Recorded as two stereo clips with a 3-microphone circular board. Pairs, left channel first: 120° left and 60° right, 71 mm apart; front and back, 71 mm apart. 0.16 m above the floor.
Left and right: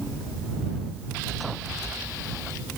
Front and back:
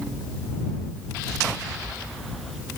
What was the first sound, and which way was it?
Only background noise.